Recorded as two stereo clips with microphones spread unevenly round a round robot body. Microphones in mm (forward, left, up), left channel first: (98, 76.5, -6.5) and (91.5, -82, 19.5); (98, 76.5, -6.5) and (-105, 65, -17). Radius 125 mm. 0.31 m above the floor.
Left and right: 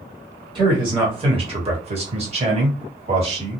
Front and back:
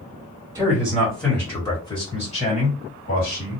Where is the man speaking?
125° right, 1.2 m; by 3.6 s 40° right, 2 m.